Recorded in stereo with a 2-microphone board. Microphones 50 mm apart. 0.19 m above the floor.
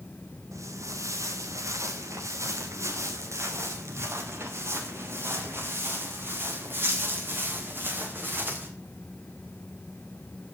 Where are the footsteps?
85° right, 3 m; by 8.7 s 40° right (ahead or behind), 6 m.